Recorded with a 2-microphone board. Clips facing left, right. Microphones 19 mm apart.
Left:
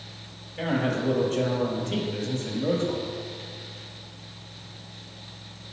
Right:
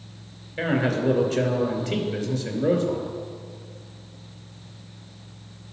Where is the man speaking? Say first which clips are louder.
Right 3 dB; 30° right (ahead or behind), 2 m.